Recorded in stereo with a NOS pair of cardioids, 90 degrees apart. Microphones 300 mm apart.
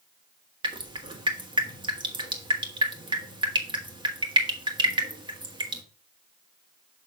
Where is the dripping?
15° right, 1.6 m.